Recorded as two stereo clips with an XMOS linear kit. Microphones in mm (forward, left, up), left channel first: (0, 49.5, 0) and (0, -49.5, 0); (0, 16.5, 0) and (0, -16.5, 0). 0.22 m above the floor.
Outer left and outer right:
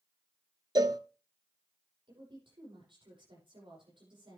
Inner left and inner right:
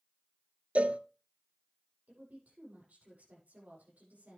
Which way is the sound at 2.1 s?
55° right (ahead or behind).